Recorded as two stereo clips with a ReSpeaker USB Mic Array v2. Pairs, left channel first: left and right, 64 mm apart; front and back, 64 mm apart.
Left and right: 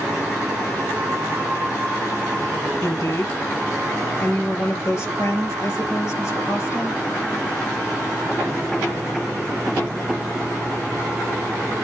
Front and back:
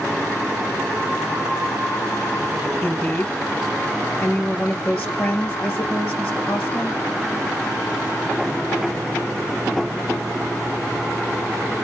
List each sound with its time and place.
2.8 s a woman speaking: 65° left, 2 m